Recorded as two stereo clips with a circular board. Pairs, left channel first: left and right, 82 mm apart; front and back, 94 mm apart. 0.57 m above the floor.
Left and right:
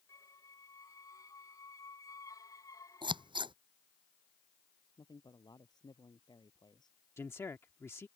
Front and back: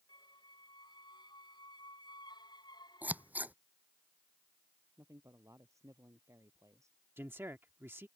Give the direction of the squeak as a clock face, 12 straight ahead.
11 o'clock.